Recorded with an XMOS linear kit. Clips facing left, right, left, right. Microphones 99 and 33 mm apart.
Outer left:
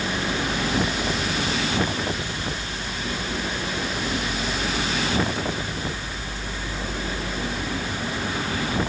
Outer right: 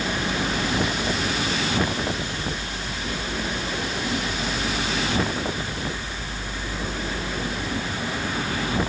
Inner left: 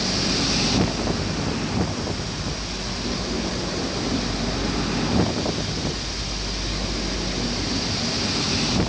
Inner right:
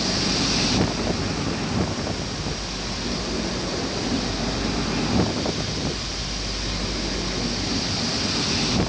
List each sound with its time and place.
Only background noise.